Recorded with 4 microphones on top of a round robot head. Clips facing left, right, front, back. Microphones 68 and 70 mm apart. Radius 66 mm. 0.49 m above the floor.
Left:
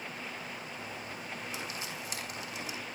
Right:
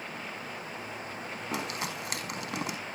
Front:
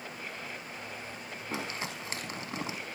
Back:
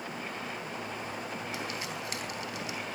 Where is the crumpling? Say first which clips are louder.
Right 6 dB, even; 60° right, 5 m.